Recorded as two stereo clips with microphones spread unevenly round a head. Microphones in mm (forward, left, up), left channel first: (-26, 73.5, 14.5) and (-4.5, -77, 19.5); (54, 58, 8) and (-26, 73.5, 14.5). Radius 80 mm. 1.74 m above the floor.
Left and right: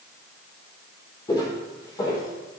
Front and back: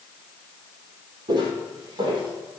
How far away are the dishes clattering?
No dishes clattering in this recording.